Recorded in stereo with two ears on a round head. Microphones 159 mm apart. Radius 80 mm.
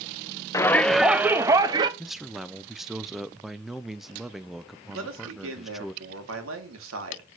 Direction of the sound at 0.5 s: 15° left (ahead or behind).